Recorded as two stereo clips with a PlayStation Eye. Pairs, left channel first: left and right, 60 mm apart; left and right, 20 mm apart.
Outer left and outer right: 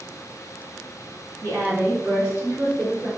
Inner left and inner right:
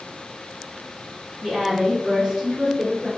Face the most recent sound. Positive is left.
turn(degrees=-30)  # may be behind; listen again after turning